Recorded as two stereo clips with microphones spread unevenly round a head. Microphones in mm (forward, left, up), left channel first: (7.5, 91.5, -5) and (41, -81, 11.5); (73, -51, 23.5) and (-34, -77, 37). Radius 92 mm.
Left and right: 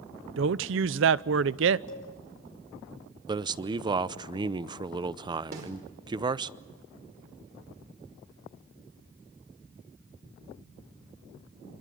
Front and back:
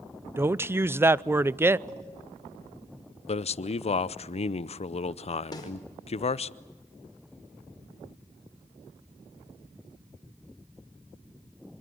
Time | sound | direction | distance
0.4 | a woman speaking | 95° right | 0.6 m
1.9 | a cowbell | 120° left | 5 m
3.3 | a man speaking | 10° right | 0.7 m
5.5 | a snare drum | 40° right | 5 m